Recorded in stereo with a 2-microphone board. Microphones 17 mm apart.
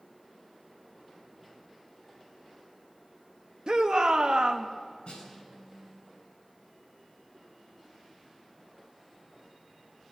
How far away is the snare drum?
About 8.5 m.